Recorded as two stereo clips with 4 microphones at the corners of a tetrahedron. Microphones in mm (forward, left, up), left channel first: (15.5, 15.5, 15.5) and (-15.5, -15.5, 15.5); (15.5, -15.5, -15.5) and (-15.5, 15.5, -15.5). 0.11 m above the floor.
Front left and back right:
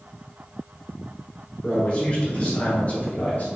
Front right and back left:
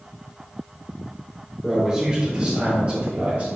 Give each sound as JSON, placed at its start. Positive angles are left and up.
{"t": 1.6, "sound": "a man speaking", "azimuth_deg": 70, "distance_m": 1.3}